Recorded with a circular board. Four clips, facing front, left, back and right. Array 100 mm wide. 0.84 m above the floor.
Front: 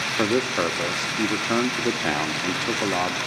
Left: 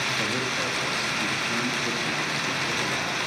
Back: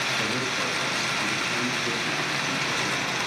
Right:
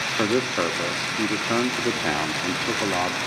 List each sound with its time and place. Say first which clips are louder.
0.2 s a man speaking: right 6 dB, front 7 dB; 40° right, 0.9 m